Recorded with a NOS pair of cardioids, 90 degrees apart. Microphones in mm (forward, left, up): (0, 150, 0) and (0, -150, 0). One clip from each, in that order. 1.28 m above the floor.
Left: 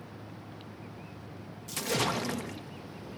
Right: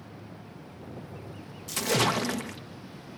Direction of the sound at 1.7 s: 25° right.